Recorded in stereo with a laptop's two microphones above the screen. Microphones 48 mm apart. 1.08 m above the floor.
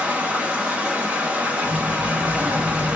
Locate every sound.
0.0 s running water: 25° right (ahead or behind), 0.7 m
1.6 s a child speaking: 65° right (ahead or behind), 0.6 m